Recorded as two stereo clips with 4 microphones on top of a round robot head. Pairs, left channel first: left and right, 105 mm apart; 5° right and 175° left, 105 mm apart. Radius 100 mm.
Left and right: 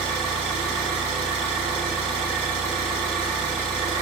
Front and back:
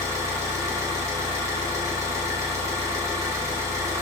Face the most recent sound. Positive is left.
turn(degrees=110)